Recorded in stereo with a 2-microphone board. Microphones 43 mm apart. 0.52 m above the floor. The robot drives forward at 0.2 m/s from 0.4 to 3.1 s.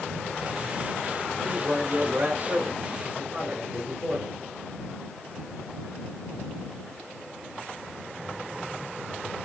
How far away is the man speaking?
About 1.7 m.